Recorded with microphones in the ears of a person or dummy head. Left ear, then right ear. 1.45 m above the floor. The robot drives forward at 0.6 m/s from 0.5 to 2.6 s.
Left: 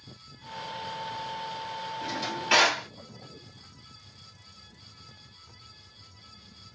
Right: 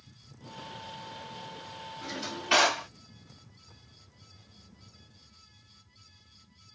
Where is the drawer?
30° left (ahead or behind), 1.6 m; by 2.9 s 25° left (ahead or behind), 1.9 m.